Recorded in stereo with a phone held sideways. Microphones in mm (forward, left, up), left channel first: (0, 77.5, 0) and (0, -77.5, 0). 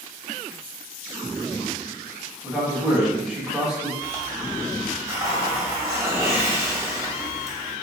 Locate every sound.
2.4 s a man speaking: 5° right (ahead or behind), 1.4 m
4.0 s a hiss: 20° right (ahead or behind), 1.3 m